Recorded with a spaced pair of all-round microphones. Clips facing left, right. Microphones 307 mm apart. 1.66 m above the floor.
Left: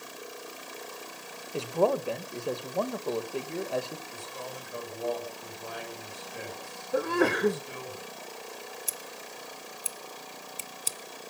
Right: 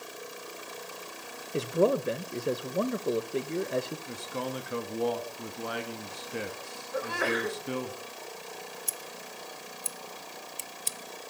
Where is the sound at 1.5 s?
20° right (ahead or behind), 1.5 m.